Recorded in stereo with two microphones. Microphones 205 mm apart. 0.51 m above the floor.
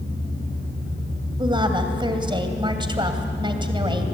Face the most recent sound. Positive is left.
turn(degrees=-25)  # may be behind; listen again after turning